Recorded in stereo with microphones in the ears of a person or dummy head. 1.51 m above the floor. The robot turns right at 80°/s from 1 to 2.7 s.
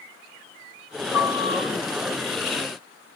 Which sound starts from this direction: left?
A piano, at 1.1 s.